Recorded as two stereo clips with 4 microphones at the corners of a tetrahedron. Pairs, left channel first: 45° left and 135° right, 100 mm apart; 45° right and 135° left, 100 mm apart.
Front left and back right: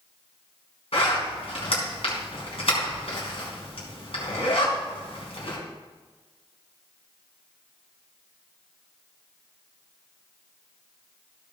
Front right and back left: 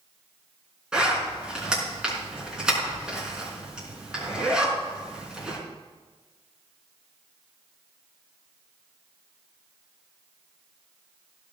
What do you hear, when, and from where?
0.9 s a zipper: 55° left, 4.5 m